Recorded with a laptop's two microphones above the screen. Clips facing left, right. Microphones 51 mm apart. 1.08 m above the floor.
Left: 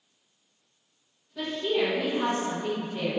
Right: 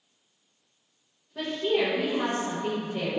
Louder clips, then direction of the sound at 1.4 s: Right 1 dB; 20° right (ahead or behind).